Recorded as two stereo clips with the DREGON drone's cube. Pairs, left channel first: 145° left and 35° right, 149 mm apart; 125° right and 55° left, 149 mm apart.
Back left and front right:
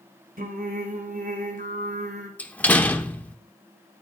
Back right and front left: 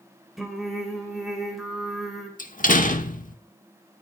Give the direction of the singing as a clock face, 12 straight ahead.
1 o'clock.